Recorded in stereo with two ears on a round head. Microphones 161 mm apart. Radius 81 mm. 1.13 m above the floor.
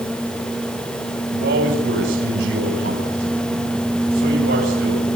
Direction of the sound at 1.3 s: 65° right (ahead or behind).